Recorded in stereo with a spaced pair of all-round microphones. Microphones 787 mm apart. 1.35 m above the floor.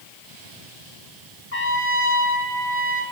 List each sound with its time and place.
1.5 s a trumpet: 45° left (ahead or behind), 2 m